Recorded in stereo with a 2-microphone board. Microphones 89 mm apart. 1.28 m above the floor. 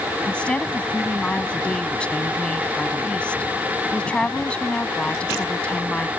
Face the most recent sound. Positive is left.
turn(degrees=10)  # may be behind; listen again after turning